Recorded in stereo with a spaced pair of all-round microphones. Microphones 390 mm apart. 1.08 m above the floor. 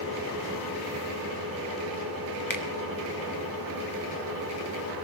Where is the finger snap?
50° left (ahead or behind), 1.6 m.